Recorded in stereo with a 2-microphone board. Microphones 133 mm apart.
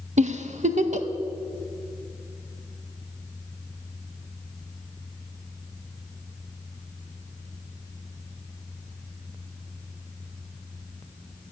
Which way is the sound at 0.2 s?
60° right (ahead or behind).